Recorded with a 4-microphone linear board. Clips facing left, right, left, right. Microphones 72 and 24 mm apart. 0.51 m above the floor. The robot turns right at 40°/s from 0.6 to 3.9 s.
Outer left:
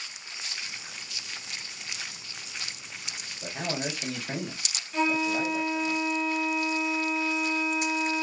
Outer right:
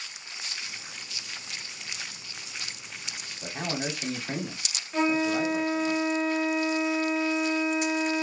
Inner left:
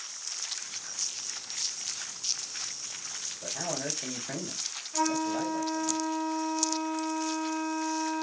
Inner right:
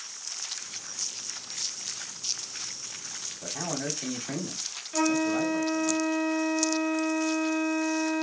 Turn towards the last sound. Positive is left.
turn(degrees=-40)  # may be behind; listen again after turning